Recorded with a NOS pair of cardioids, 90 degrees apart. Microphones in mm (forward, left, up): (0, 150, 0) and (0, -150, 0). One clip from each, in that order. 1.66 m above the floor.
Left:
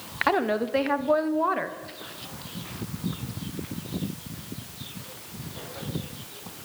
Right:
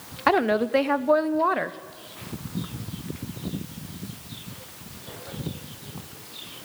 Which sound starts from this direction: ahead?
A woman speaking, at 0.3 s.